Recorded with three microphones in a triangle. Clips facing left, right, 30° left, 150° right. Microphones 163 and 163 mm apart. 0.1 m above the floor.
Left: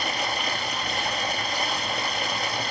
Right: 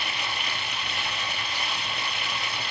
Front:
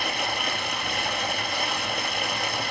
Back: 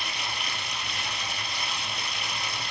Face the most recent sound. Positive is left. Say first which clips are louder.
# left 6 dB, front 7 dB
turn(degrees=50)